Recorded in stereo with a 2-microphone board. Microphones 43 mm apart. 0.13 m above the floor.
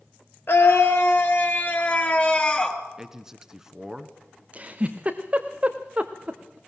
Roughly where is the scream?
Left.